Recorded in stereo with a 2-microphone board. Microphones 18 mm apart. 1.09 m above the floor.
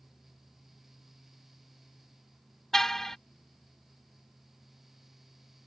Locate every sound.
2.7 s a car horn: 25° left (ahead or behind)